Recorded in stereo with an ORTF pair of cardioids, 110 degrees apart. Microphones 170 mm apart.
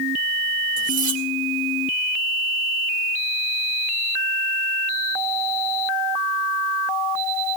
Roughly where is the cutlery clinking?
Ahead right.